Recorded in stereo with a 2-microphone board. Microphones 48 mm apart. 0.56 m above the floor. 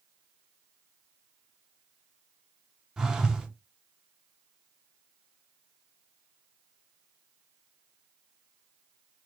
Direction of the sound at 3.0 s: 15° right (ahead or behind).